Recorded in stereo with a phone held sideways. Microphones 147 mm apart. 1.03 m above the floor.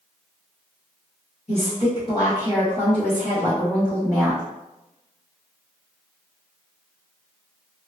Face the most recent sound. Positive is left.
turn(degrees=-5)  # may be behind; listen again after turning